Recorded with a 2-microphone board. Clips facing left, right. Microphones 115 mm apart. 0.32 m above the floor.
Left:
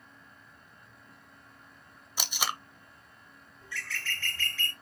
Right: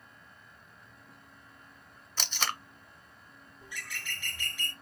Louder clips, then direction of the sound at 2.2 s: Left 1 dB; 15° left (ahead or behind).